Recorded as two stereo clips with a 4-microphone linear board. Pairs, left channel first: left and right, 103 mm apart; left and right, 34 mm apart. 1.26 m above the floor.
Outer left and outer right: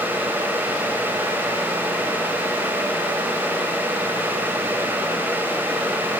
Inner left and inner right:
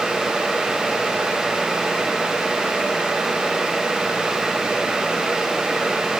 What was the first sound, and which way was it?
Only background noise.